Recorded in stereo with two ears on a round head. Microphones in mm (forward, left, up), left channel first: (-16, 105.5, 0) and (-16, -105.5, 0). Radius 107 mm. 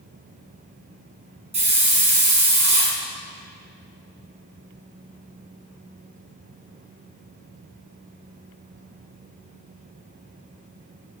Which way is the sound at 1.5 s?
30° right (ahead or behind).